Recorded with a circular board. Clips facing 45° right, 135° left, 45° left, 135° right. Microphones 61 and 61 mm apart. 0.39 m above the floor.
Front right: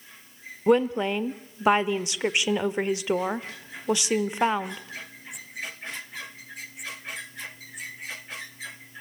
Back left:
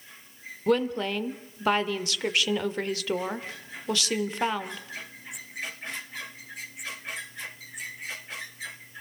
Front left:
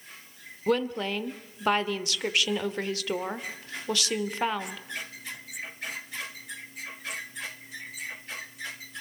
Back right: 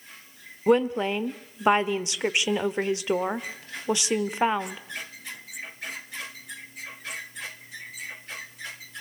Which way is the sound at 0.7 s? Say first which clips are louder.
Front right 4 dB, back right 5 dB; 95° right.